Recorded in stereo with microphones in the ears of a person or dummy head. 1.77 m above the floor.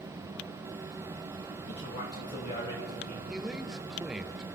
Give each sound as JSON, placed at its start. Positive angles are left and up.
{"t": 1.7, "sound": "a man speaking", "side_deg": 40, "distance_m": 3.5}
{"t": 3.3, "sound": "a man speaking", "side_deg": -5, "distance_m": 0.8}